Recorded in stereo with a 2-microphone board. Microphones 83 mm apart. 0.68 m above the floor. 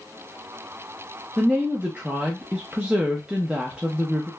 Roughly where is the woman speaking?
Centre.